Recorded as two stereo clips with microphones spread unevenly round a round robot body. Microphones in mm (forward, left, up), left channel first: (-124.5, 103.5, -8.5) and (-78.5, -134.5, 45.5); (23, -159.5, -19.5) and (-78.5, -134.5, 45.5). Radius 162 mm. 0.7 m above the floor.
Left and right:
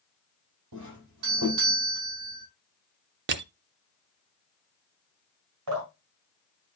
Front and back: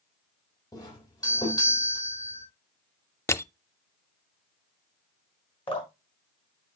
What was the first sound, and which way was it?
A doorbell, 60° right.